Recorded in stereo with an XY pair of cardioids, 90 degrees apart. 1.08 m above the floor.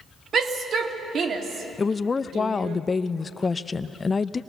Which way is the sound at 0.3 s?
65° right.